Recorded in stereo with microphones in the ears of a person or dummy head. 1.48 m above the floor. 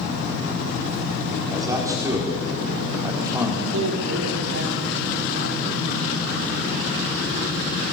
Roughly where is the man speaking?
Centre.